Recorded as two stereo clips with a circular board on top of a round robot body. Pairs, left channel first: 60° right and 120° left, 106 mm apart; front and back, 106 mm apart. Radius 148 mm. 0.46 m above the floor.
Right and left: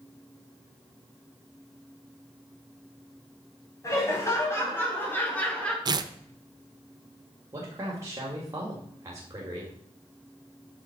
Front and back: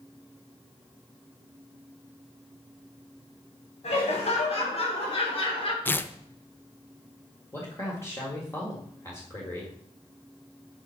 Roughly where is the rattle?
I don't hear a rattle.